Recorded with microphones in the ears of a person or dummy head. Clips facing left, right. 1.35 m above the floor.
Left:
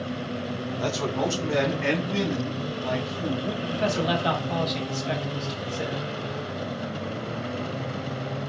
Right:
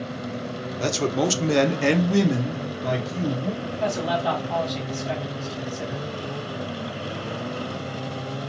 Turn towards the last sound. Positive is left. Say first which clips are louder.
# left 2 dB
turn(degrees=30)  # may be behind; listen again after turning